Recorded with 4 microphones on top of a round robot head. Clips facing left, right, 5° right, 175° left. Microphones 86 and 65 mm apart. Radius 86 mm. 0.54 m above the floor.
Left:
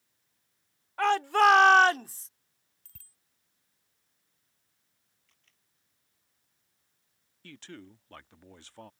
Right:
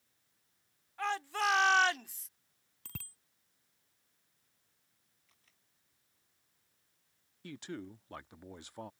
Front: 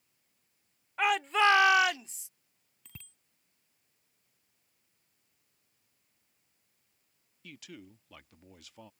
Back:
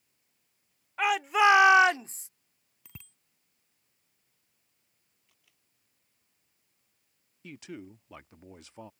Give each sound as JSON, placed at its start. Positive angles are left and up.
{"t": 1.0, "sound": "a shout", "azimuth_deg": 85}
{"t": 2.9, "sound": "a bicycle bell", "azimuth_deg": -110}
{"t": 5.3, "sound": "a camera shutter", "azimuth_deg": -170}
{"t": 7.4, "sound": "a man speaking", "azimuth_deg": -155}